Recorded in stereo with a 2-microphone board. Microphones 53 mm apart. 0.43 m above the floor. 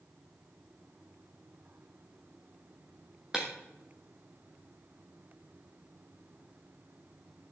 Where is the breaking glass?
15° right (ahead or behind), 5 m.